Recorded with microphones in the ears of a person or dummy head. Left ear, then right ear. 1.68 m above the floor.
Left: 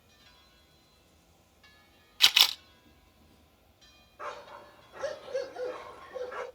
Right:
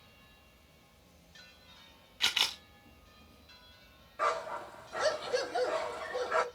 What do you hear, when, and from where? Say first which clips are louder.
0.0 s an insect: even; centre (ahead or behind), 3 m
2.2 s a camera shutter: left 8 dB; 35° left (ahead or behind), 0.6 m
4.2 s a dog barking: right 9 dB; 40° right (ahead or behind), 1.5 m